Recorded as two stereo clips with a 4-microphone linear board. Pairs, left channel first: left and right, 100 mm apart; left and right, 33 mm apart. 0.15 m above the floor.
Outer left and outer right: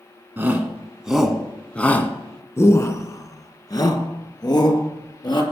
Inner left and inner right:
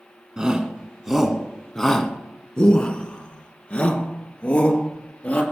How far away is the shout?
About 1.6 m.